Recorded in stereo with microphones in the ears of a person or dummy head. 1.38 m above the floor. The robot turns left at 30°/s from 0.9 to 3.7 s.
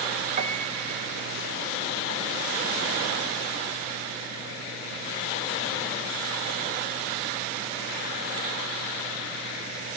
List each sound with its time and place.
0.4 s a piano: 35° right (ahead or behind), 1.7 m; by 5.8 s 60° right (ahead or behind), 1.7 m